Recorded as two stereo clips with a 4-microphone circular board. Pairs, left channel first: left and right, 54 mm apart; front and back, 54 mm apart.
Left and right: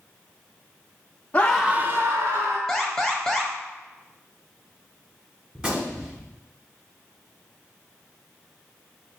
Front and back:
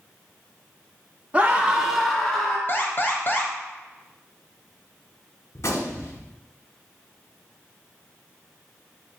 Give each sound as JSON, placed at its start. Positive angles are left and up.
{"t": 1.3, "sound": "a scream", "azimuth_deg": 135, "distance_m": 0.6}
{"t": 2.7, "sound": "an alarm", "azimuth_deg": 5, "distance_m": 0.8}
{"t": 5.5, "sound": "a gunshot", "azimuth_deg": -20, "distance_m": 1.3}